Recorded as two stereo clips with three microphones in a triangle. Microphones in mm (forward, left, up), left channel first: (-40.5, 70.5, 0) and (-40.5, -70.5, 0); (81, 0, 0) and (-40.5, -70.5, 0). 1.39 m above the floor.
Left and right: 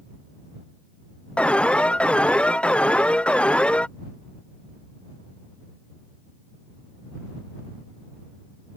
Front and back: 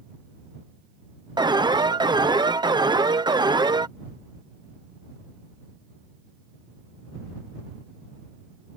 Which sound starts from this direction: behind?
An alarm, at 1.4 s.